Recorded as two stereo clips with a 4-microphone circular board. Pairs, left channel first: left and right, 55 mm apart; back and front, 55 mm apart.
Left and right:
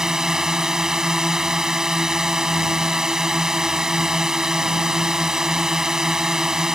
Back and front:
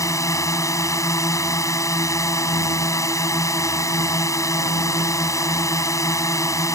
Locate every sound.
0.0 s a drone: 170° right